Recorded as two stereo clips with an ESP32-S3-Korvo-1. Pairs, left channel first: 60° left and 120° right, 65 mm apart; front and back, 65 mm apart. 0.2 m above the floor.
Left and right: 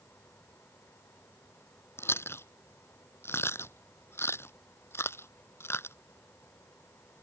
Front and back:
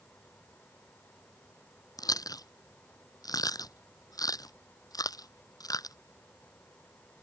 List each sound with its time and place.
2.0 s chewing: 10° left